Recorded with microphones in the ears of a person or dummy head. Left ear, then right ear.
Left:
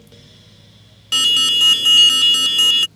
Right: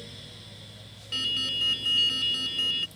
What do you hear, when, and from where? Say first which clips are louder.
1.1 s an alarm: left 14 dB; 50° left (ahead or behind)